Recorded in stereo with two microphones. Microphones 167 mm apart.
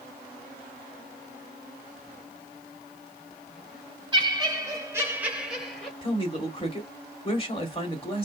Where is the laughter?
25° right (ahead or behind), 1.1 m; by 5.9 s centre (ahead or behind), 1.3 m.